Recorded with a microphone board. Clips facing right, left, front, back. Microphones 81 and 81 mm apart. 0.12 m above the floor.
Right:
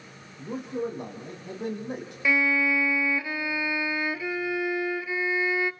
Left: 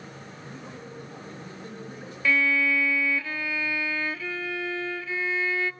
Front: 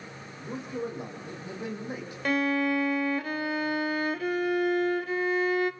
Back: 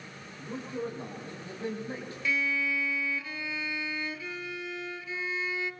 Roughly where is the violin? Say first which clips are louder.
Even, front 6 dB; ahead.